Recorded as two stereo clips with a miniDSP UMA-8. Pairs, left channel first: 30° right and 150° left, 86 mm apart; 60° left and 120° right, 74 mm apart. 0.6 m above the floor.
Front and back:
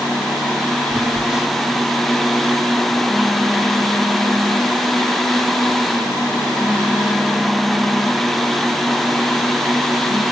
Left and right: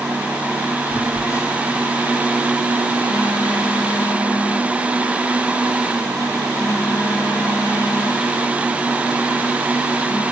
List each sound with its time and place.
0.9 s a phone buzzing: 70° left, 0.9 m